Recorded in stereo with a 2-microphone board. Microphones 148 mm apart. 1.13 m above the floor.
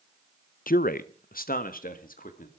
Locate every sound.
0.7 s a man speaking: 70° left (ahead or behind), 0.7 m; by 2.5 s 65° left (ahead or behind), 2.5 m